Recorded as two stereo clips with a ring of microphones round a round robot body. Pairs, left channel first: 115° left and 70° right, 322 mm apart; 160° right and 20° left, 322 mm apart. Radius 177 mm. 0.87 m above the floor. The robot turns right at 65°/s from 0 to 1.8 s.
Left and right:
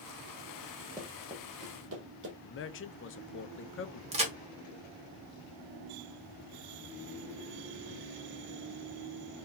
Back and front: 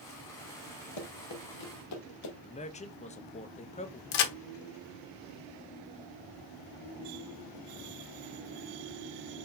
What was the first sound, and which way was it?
Running footsteps, 150° right.